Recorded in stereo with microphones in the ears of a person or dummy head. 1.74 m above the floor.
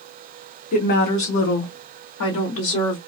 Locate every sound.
0.7 s a woman speaking: 40° left (ahead or behind), 1.2 m; by 3.0 s 70° left (ahead or behind), 1.7 m